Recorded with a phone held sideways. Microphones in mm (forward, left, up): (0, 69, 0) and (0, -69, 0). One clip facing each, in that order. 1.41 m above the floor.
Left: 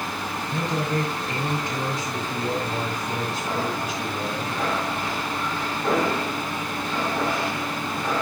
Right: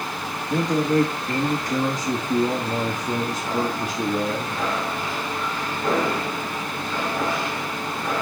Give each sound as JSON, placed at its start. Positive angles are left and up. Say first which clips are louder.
{"t": 0.5, "sound": "a man speaking", "louder": "right 7 dB", "side_deg": -85, "distance_m": 2.0}